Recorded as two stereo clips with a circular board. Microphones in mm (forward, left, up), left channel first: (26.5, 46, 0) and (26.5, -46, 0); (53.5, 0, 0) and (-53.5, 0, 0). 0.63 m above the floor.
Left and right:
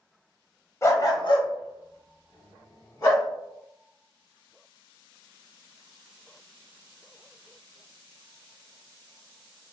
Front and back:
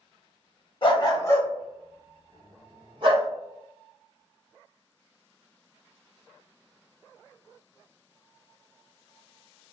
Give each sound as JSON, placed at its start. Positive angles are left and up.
{"t": 0.8, "sound": "a dog barking", "azimuth_deg": 35, "distance_m": 0.8}